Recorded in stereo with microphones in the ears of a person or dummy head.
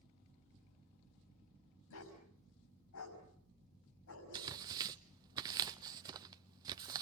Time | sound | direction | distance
1.9 | a dog barking | 80° left | 6 m
4.3 | tearing paper | 15° right (ahead or behind) | 0.5 m